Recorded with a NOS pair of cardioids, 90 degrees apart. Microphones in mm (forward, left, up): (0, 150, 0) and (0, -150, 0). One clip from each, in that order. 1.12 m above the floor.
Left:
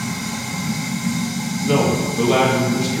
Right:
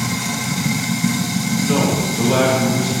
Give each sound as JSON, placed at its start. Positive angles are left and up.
{"t": 0.0, "sound": "running water", "azimuth_deg": -65, "distance_m": 0.9}
{"t": 1.6, "sound": "a man speaking", "azimuth_deg": 25, "distance_m": 1.7}